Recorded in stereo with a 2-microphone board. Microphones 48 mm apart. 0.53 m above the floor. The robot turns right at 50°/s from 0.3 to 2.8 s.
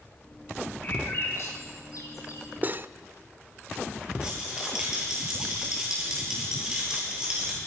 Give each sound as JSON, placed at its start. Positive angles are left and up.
{"t": 0.8, "sound": "a bird", "side_deg": 30, "distance_m": 5.0}
{"t": 2.6, "sound": "cutlery clinking", "side_deg": -35, "distance_m": 0.7}
{"t": 4.2, "sound": "a rattle", "side_deg": -15, "distance_m": 10.0}